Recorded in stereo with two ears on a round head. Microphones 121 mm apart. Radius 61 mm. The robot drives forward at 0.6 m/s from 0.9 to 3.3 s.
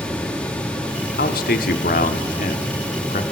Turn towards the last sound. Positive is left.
turn(degrees=55)  # may be behind; listen again after turning